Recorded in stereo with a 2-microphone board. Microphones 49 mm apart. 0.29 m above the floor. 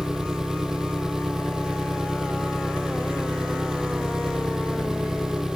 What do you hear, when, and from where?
0.0 s an engine running: 10° right (ahead or behind)